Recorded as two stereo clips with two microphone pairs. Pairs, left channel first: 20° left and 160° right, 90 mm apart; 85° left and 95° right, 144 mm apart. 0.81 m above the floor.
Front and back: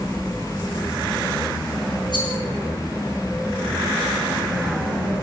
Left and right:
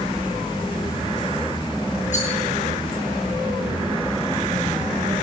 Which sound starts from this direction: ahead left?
A rattle, at 2.1 s.